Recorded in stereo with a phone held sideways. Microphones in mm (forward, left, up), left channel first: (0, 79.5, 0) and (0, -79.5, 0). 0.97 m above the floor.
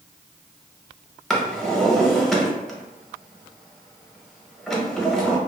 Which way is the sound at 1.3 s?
Centre (ahead or behind).